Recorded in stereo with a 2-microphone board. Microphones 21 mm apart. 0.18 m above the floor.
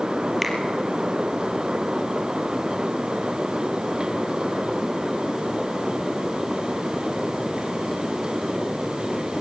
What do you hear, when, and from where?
0.4 s a finger snap: 5° left (ahead or behind), 3.5 m